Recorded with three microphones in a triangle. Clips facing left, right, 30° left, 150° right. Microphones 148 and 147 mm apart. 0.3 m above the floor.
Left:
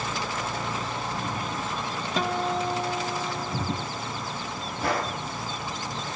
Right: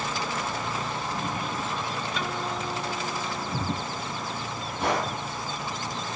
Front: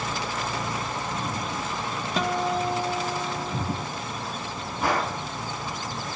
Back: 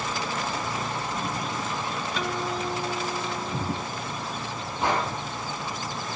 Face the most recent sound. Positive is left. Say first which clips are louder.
# right 1 dB, even
turn(degrees=-85)